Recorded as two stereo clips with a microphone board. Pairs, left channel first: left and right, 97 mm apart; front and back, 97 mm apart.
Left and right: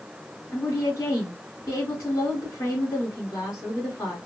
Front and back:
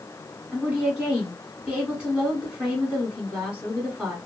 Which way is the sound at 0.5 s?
110° left.